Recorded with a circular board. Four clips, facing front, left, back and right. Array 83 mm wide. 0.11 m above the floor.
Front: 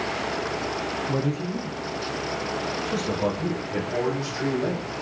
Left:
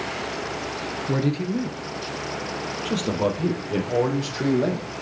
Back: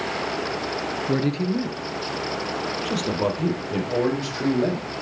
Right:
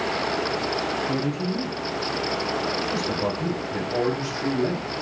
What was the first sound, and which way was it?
A man speaking, 155° left.